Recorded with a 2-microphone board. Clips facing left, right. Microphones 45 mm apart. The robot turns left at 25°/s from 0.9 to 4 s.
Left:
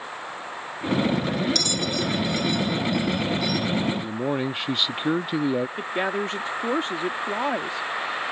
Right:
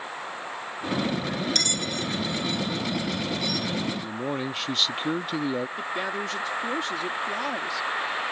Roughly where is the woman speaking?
Left.